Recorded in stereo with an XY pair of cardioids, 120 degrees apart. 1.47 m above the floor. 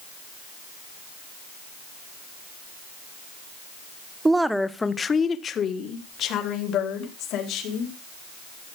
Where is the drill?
I don't hear a drill.